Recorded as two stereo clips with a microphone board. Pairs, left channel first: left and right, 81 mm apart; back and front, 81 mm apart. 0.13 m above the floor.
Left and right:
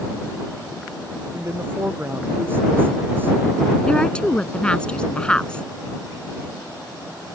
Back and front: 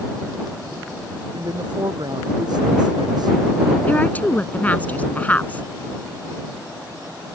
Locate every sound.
1.3 s a woman speaking: 25° right
3.9 s a woman speaking: 150° left